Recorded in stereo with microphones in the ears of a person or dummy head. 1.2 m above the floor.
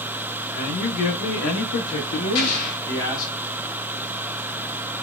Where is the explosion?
65° left (ahead or behind), 2 m.